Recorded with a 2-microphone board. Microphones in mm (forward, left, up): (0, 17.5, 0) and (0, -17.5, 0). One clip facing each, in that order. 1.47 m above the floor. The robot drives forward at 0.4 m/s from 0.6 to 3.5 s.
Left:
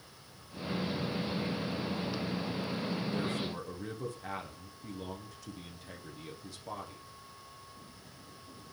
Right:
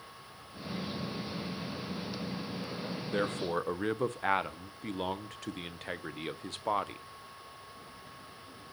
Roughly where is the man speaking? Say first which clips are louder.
Right 3 dB; right.